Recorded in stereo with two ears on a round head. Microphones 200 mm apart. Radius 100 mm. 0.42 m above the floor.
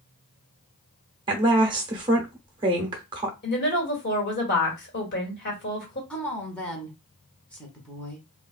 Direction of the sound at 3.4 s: 50° left (ahead or behind).